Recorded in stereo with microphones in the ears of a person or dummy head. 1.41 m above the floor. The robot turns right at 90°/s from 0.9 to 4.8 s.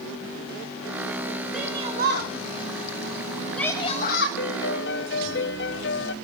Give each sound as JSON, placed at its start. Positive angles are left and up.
{"t": 1.5, "sound": "a shout", "side_deg": 0, "distance_m": 2.0}
{"t": 4.4, "sound": "a piano", "azimuth_deg": 70, "distance_m": 0.8}